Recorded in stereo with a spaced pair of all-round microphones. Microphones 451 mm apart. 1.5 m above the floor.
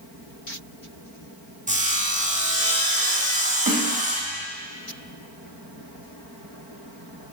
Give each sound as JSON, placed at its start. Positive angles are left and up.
{"t": 1.7, "sound": "sawing", "side_deg": -15, "distance_m": 1.2}
{"t": 3.7, "sound": "a snare drum", "side_deg": -45, "distance_m": 1.0}